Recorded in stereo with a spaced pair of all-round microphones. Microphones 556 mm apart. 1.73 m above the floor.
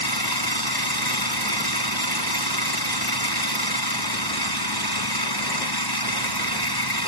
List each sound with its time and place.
0.0 s an engine running: 40° left (ahead or behind)